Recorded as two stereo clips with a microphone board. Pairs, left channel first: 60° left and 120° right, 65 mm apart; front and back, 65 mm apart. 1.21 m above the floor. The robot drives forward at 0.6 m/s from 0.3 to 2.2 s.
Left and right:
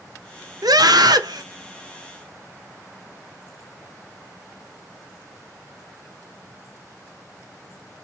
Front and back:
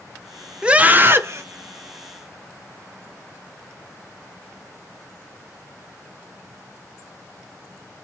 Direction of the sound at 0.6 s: 105° right.